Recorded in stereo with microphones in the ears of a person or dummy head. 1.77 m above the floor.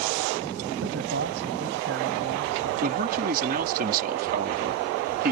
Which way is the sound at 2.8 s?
50° right (ahead or behind).